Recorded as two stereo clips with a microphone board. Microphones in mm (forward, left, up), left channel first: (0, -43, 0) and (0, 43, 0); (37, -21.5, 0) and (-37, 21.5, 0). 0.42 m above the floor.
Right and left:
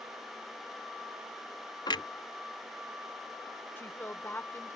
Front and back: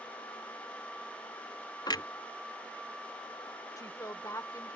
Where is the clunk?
65° right.